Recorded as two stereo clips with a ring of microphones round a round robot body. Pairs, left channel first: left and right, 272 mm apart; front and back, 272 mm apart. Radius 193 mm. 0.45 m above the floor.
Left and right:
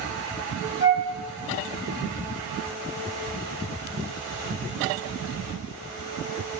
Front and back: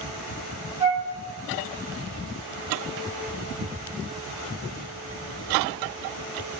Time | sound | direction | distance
0.8 | a flute | 100° left | 1.1 m